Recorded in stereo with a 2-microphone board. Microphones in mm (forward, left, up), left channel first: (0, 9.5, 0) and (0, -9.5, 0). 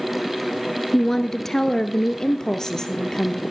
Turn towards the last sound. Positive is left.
turn(degrees=35)  # may be behind; listen again after turning